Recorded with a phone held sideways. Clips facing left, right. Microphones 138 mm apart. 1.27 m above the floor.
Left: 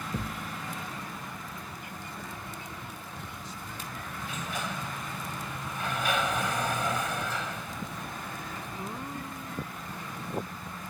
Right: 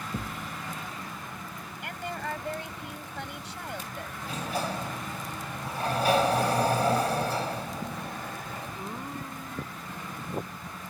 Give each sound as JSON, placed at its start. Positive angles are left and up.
{"t": 0.1, "sound": "a thud", "side_deg": 5}
{"t": 1.8, "sound": "a woman speaking", "side_deg": -85}
{"t": 4.2, "sound": "a sliding door", "side_deg": -35}